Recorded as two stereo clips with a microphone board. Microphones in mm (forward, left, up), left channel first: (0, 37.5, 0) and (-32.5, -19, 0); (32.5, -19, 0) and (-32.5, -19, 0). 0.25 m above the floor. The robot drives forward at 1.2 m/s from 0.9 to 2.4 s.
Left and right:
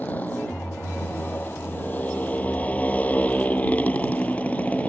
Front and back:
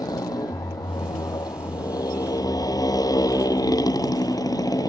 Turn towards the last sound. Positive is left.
turn(degrees=-5)